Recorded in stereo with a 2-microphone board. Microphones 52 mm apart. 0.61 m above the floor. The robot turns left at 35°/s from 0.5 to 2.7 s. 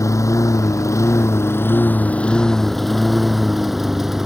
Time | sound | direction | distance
0.0 | a lawn mower | 80° left | ?